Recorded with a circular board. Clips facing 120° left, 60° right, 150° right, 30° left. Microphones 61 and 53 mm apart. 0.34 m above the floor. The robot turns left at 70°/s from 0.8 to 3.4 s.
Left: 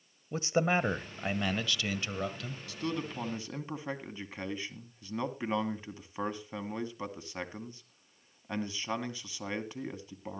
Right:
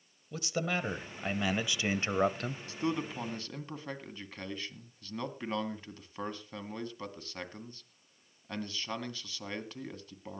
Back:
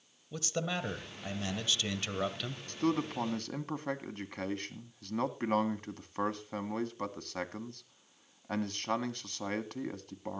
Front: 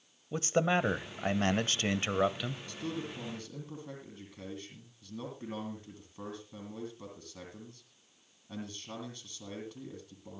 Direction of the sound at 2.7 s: 115° right.